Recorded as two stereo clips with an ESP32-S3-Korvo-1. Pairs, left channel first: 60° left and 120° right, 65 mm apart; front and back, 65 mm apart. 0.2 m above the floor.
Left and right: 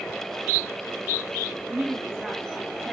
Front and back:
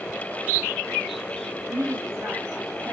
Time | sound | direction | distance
1.7 | a woman speaking | 155° left | 3.5 m